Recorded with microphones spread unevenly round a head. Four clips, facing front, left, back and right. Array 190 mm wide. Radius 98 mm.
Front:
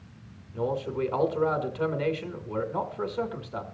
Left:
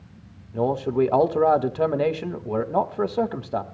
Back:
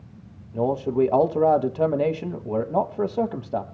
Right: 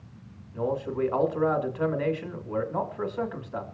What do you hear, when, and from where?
0.5 s a man speaking: 135° left, 1.5 m